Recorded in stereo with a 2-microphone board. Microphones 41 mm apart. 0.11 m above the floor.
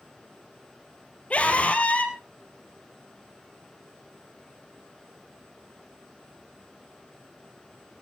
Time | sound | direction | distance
1.3 | a scream | 35° left (ahead or behind) | 3.5 m